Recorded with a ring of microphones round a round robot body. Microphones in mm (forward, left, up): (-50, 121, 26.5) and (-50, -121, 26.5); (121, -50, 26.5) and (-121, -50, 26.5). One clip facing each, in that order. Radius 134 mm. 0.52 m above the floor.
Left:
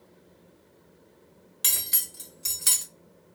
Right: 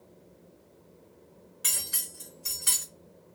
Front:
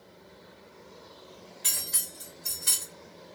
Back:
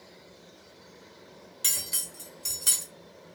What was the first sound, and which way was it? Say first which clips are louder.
Cutlery clinking: left 1 dB, even; 130° left.